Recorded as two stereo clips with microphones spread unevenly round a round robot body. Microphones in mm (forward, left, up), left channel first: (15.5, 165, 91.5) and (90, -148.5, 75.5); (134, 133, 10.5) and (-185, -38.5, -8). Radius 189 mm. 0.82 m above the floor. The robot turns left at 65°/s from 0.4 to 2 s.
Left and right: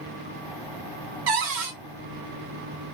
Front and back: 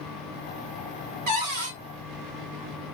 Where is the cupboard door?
100° right, 1.1 m; by 1.8 s 130° right, 1.1 m.